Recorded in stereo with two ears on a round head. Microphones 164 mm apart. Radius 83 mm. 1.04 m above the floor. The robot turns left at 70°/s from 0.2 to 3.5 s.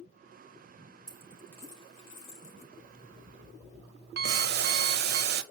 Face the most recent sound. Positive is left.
turn(degrees=-55)  # may be behind; listen again after turning